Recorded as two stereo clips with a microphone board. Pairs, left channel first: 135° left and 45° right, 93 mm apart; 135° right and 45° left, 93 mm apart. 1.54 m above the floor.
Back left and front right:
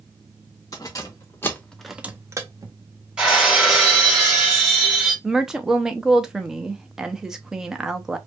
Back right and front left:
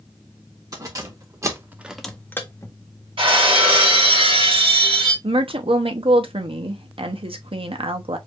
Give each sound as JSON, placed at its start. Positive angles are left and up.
{"t": 0.7, "sound": "keys jangling", "azimuth_deg": 90, "distance_m": 1.5}
{"t": 3.2, "sound": "breaking glass", "azimuth_deg": 35, "distance_m": 2.5}
{"t": 5.2, "sound": "a woman speaking", "azimuth_deg": 40, "distance_m": 0.8}